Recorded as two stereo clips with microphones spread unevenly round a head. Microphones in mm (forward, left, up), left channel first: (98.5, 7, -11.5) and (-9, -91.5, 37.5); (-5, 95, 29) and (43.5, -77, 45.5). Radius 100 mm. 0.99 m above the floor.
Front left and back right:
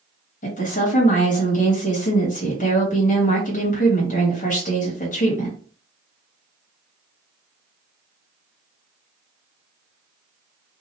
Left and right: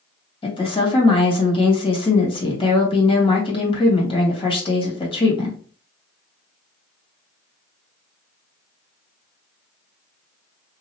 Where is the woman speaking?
45° left, 1.4 m.